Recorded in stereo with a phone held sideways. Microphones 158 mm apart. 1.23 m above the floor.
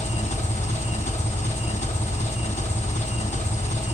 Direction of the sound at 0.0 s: 45° left (ahead or behind).